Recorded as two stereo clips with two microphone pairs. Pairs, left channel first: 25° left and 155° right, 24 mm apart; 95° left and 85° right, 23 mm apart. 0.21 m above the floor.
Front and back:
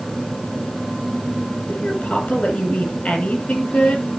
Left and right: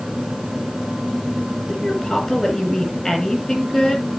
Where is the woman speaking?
35° left, 6 m.